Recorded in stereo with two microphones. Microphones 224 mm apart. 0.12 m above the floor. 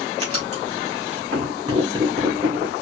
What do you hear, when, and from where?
0.2 s writing: 25° right (ahead or behind), 4 m